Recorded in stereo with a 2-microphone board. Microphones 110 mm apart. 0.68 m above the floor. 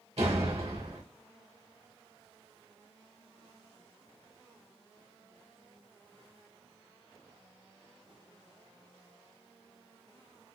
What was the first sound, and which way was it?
A door slam, 70° right (ahead or behind).